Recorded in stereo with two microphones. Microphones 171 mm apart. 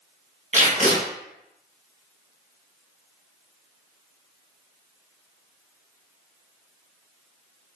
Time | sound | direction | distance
0.5 | tape being pulled | 45° right (ahead or behind) | 2 m